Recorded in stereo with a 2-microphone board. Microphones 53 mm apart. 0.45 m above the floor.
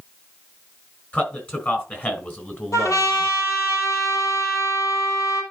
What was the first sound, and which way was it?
A man speaking, 35° left (ahead or behind).